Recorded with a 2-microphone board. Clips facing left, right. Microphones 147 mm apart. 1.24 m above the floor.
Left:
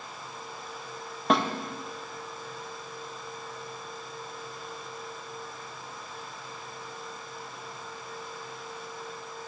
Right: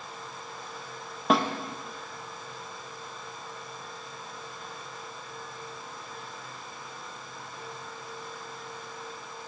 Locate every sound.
1.3 s a snare drum: centre (ahead or behind), 1.0 m